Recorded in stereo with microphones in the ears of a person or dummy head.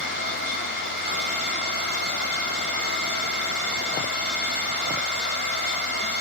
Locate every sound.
0.0 s a machine running: 50° right (ahead or behind), 1.3 m